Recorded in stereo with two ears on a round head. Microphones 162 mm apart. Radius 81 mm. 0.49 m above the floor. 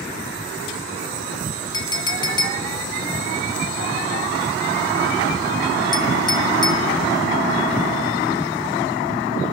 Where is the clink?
25° left (ahead or behind), 0.8 m.